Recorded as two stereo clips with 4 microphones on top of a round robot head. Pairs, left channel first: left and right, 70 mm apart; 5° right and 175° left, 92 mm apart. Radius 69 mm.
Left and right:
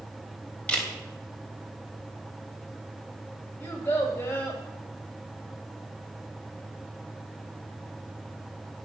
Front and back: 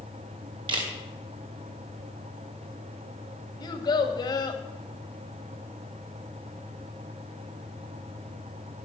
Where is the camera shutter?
160° left, 3 m.